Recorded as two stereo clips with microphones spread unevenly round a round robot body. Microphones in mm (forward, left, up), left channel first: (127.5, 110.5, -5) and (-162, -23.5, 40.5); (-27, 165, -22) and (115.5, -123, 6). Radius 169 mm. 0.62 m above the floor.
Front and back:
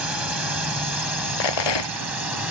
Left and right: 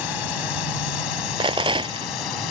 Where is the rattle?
10° left.